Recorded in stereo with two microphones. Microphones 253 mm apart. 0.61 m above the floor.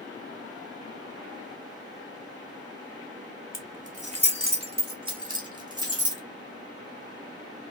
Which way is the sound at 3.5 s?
35° right (ahead or behind).